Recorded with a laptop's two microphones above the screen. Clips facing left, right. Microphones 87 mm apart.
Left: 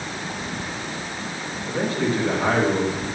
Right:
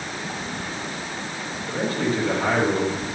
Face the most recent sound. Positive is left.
turn(degrees=30)  # may be behind; listen again after turning